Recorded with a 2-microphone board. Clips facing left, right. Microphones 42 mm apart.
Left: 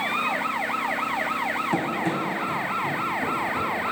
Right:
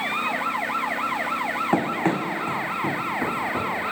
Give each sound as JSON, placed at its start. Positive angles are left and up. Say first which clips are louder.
{"t": 1.7, "sound": "running footsteps", "louder": "right 3 dB", "side_deg": -35, "distance_m": 1.1}